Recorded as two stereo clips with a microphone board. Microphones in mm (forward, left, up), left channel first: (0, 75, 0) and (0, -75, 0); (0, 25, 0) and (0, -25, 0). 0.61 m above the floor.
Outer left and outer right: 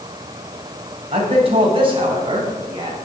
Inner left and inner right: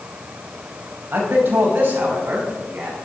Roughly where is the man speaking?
Right.